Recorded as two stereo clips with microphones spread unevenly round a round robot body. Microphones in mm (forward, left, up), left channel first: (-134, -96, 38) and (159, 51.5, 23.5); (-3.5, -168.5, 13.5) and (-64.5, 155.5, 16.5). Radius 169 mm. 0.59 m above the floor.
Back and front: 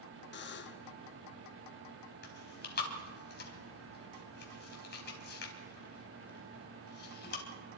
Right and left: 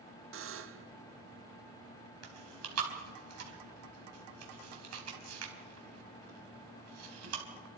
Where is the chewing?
145° left, 4 m.